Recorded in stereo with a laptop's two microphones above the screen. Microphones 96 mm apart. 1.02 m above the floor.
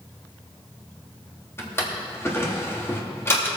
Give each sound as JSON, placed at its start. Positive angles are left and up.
{"t": 1.6, "sound": "a drawer", "side_deg": 25, "distance_m": 1.0}